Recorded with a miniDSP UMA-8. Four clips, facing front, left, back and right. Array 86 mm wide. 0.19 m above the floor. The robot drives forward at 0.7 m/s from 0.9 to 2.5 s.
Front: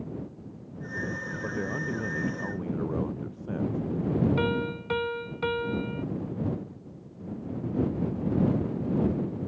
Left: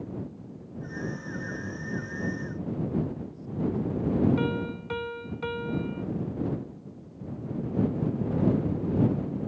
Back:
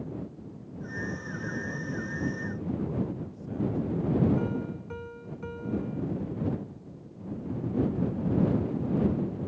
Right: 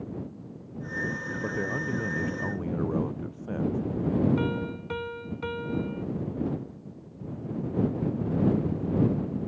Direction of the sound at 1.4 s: 50° right.